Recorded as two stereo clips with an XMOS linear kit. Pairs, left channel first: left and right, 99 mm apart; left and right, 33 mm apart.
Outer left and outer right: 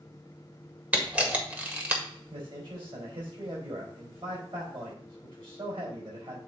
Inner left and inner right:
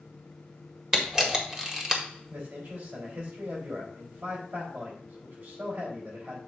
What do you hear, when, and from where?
0.9 s a camera shutter: 15° right (ahead or behind), 1.6 m
2.3 s a man speaking: 65° right (ahead or behind), 4.5 m